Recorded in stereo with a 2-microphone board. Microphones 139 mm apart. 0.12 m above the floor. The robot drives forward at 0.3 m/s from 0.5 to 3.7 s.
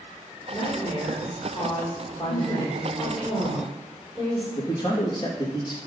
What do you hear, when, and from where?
0.5 s a woman speaking: 30° left (ahead or behind), 5.5 m; by 3.3 s 25° left (ahead or behind), 6.5 m
2.3 s a woman speaking: centre (ahead or behind), 4.5 m
4.5 s a man speaking: 30° left (ahead or behind), 4 m